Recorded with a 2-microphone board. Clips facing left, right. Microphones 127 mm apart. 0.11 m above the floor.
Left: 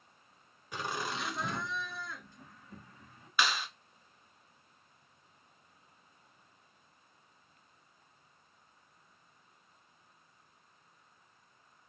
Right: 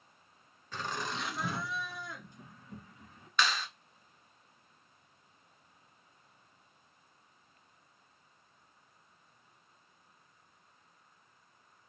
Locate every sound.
0.7 s laughter: 10° left (ahead or behind), 1.4 m; by 3.3 s 30° right (ahead or behind), 1.9 m
3.4 s a clap: 10° left (ahead or behind), 1.1 m